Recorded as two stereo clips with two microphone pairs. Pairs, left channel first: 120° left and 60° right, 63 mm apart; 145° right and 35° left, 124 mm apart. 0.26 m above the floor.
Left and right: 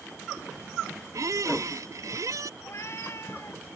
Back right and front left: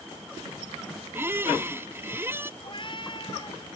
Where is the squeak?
35° right.